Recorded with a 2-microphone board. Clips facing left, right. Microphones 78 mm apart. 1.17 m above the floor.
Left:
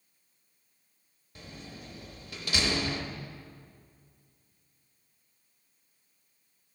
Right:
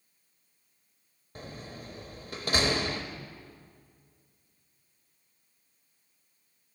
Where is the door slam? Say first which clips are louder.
Right 3 dB; 40° right (ahead or behind), 0.9 m.